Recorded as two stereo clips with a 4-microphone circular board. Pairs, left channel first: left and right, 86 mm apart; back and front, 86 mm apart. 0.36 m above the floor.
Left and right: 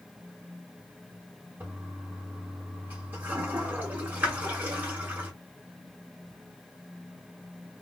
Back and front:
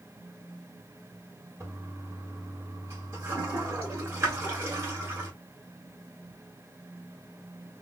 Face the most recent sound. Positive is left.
turn(degrees=-35)